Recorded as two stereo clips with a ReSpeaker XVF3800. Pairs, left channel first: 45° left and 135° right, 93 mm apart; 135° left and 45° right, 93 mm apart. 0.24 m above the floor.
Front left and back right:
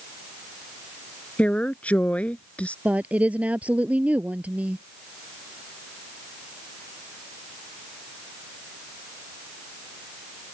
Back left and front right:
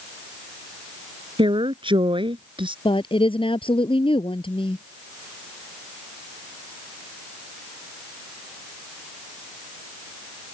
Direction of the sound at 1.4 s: 30° right.